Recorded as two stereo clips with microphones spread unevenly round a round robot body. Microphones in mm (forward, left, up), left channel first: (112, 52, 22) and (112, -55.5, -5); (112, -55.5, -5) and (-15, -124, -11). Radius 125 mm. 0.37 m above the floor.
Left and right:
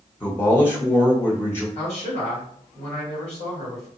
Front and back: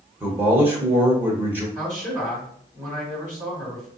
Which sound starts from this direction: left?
A man speaking, at 1.8 s.